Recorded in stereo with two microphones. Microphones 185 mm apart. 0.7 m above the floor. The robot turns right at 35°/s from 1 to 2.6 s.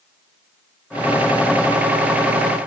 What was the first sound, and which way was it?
Only background noise.